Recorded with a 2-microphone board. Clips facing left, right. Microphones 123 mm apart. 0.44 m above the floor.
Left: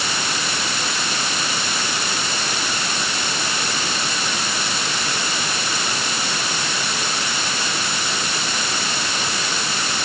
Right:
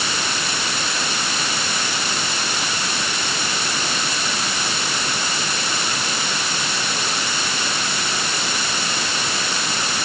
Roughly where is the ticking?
No ticking in this recording.